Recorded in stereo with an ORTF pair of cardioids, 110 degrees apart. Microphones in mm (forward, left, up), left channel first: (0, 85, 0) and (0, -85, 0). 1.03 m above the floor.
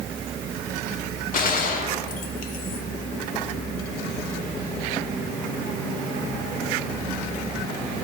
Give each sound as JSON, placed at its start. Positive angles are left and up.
{"t": 1.3, "sound": "a gunshot", "azimuth_deg": 55, "distance_m": 1.1}